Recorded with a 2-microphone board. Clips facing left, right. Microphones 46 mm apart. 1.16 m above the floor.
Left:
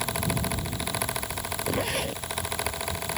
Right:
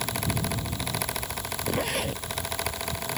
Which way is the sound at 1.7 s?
Centre (ahead or behind).